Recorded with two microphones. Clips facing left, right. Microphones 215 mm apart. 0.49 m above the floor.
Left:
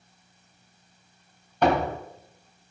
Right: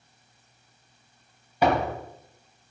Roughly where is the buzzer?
No buzzer in this recording.